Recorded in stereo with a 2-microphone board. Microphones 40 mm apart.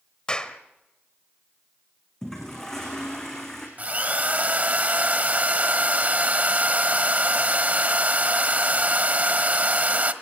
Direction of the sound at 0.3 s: 25° left (ahead or behind).